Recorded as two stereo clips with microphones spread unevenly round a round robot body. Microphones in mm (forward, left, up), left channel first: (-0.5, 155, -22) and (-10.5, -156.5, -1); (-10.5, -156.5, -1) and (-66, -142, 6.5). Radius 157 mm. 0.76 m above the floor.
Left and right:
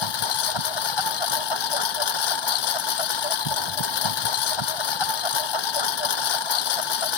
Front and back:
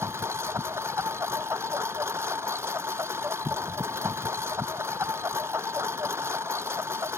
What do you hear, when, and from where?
0.0 s a lawn mower: 85° left